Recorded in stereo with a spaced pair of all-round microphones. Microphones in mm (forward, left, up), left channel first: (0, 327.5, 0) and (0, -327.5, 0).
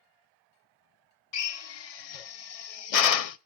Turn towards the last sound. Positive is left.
turn(degrees=65)  # may be behind; listen again after turning